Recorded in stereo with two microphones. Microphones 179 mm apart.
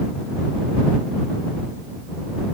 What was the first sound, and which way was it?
Only background noise.